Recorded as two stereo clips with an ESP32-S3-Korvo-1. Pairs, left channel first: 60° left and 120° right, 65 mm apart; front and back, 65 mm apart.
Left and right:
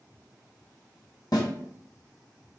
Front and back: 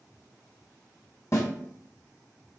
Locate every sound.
1.3 s a snare drum: 40° left, 1.3 m